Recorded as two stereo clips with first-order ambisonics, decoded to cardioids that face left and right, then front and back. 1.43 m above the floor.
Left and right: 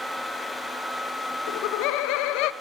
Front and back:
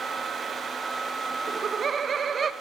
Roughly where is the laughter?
Left.